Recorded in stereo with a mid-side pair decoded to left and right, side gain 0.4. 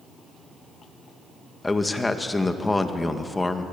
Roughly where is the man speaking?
Ahead.